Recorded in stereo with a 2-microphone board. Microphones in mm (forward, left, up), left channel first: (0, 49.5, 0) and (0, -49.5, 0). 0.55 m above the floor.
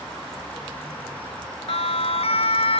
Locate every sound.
1.7 s a siren: 75° left (ahead or behind)